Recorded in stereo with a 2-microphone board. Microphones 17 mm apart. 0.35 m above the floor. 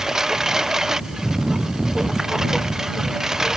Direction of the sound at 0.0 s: 35° right (ahead or behind).